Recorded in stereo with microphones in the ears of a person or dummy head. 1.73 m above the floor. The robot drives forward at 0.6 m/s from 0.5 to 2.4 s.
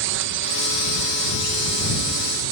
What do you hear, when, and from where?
0.0 s a drone: 65° right (ahead or behind); by 2.5 s 70° right (ahead or behind)